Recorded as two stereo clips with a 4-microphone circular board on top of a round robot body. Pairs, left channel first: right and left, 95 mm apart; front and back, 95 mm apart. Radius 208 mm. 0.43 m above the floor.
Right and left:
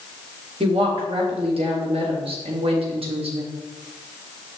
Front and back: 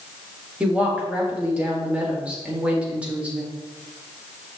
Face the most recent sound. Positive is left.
turn(degrees=105)